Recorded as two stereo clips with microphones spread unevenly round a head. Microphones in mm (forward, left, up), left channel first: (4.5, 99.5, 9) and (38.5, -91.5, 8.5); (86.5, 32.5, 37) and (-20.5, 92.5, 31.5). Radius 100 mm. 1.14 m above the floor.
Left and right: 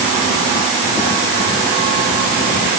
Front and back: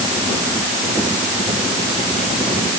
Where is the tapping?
No tapping in this recording.